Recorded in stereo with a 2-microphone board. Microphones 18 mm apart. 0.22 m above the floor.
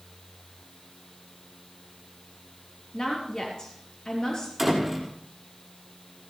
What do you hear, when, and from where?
2.9 s a woman speaking: 35° left (ahead or behind), 4.5 m
4.6 s a door slam: centre (ahead or behind), 6 m